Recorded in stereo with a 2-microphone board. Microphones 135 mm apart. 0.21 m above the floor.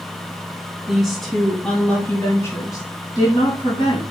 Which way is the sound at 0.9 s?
5° right (ahead or behind).